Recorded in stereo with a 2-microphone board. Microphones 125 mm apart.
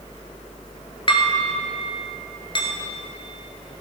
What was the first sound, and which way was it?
Dishes clattering, 40° left (ahead or behind).